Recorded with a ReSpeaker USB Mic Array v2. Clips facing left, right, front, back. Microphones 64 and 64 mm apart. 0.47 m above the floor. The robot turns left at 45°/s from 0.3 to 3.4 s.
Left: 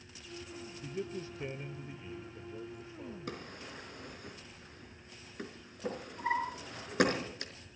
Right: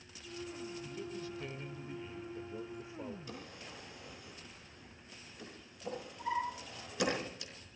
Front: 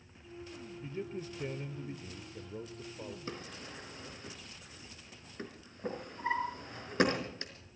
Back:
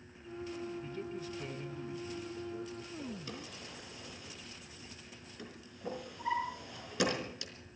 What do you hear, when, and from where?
0.8 s a man speaking: 65° left, 1.0 m; by 3.2 s 40° right, 1.0 m
3.3 s a drawer: 60° left, 4 m; by 7.5 s 50° left, 4 m